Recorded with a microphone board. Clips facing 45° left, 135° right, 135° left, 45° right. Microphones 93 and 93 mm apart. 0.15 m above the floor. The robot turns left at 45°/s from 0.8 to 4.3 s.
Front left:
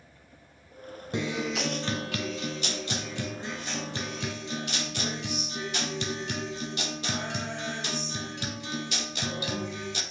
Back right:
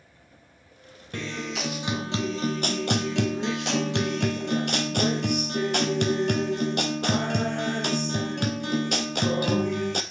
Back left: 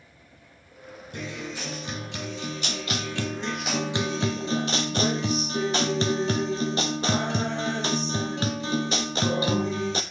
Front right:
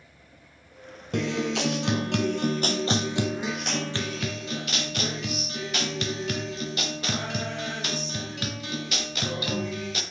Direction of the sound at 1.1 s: 25° right.